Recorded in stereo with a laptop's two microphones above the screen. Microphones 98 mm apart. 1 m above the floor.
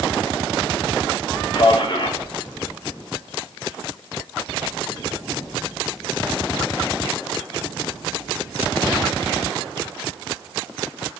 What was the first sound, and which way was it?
A man speaking, 50° left (ahead or behind).